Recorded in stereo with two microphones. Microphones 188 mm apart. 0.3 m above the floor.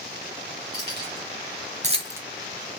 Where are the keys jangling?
65° right (ahead or behind), 2.5 m; by 2.2 s 5° right (ahead or behind), 0.7 m.